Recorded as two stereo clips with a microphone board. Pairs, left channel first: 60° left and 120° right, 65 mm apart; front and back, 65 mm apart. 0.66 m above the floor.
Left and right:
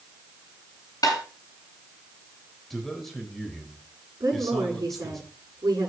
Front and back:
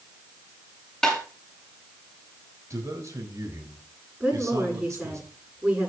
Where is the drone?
I don't hear a drone.